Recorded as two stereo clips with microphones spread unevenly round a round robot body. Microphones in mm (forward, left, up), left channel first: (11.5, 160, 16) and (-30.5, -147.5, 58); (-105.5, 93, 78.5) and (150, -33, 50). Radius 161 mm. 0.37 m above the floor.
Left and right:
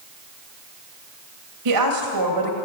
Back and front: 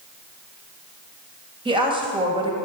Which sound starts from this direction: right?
A woman speaking, at 1.6 s.